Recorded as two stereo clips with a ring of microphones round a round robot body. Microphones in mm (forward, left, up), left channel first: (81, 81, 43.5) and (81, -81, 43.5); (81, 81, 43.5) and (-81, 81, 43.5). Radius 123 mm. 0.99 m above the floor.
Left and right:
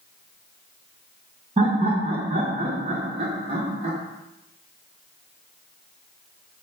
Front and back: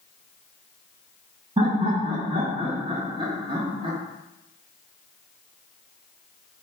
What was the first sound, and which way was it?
Laughter, 130° right.